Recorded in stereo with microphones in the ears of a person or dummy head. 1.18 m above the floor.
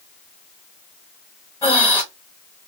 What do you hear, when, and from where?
1.6 s breathing: 10° left (ahead or behind), 1.0 m